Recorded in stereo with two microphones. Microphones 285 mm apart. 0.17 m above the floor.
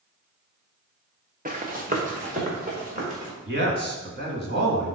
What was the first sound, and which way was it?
Running footsteps, 30° right (ahead or behind).